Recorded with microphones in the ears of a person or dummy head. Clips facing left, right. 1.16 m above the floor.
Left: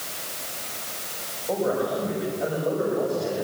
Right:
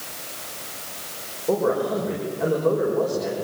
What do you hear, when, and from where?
1.5 s a man speaking: 80° right, 6 m